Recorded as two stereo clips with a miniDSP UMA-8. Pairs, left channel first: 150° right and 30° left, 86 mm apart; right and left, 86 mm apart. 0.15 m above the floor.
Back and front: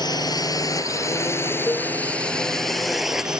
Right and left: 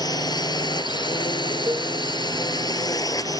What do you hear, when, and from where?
0.0 s a drone: 120° right; by 3.4 s 50° right
1.7 s a cowbell: 145° left